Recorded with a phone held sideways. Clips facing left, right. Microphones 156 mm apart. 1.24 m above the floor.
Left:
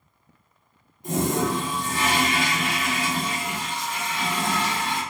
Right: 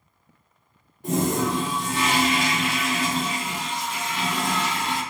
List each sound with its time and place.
1.0 s a toilet flushing: 70° right (ahead or behind), 1.2 m